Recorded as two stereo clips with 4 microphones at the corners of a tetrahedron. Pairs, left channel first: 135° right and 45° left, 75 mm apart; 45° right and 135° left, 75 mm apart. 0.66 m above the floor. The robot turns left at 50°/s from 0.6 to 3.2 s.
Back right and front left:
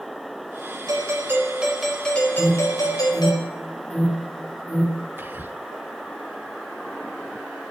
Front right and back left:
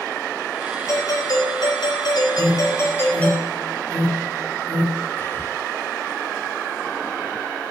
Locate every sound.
0.9 s a doorbell: 5° left, 4 m; by 3.4 s 115° right, 4 m
2.4 s an alarm: 25° right, 3 m; by 5.0 s 65° right, 3 m
5.2 s whispering: straight ahead, 0.7 m